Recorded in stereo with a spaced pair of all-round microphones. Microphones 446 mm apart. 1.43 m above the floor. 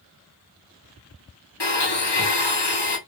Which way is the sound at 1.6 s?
65° left (ahead or behind).